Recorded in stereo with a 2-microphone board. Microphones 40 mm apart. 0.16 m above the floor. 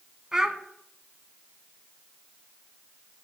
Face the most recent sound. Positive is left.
turn(degrees=-15)  # may be behind; listen again after turning